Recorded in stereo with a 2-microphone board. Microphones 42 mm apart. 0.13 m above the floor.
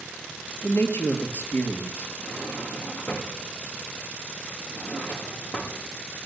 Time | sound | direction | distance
0.6 | a man speaking | 55° left (ahead or behind) | 2 m
2.2 | a drawer | 50° left (ahead or behind) | 3 m